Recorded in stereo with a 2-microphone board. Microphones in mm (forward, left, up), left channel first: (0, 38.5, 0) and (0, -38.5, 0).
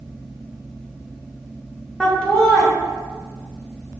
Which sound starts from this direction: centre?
Laughter, at 2.0 s.